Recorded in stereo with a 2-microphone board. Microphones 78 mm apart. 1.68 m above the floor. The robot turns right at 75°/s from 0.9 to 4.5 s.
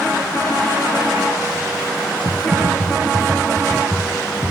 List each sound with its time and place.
2.2 s typing on a keyboard: 125° right, 0.8 m; by 4.5 s 45° left, 0.8 m